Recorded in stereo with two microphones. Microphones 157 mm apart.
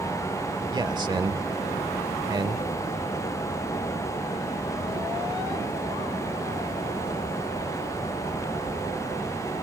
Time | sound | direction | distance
0.7 | a man speaking | 30° right (ahead or behind) | 0.9 m